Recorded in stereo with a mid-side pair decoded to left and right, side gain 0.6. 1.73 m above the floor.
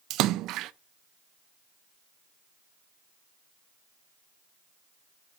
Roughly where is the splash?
Ahead right.